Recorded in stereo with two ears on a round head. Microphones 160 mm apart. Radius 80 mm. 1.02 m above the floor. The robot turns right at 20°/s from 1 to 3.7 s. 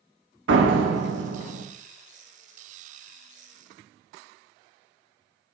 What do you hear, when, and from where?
0.5 s a door slam: 75° right (ahead or behind), 1.7 m; by 1.6 s 90° right, 1.7 m